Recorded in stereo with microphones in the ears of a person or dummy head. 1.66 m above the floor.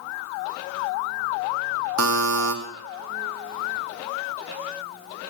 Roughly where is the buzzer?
Right.